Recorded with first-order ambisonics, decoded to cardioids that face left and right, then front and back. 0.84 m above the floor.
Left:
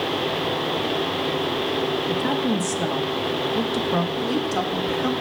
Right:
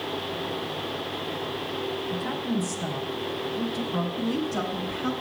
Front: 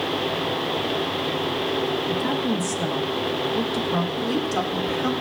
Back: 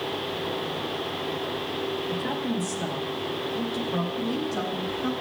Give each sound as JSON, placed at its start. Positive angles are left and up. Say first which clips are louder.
{"t": 2.1, "sound": "a woman speaking", "louder": "left 7 dB, front 5 dB", "azimuth_deg": 70, "distance_m": 1.2}
{"t": 4.2, "sound": "a woman speaking", "louder": "left 5 dB, front 5 dB", "azimuth_deg": 50, "distance_m": 1.7}